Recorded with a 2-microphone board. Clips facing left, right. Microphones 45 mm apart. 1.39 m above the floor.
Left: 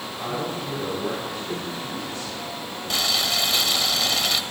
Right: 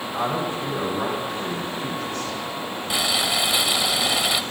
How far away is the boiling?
About 1.2 m.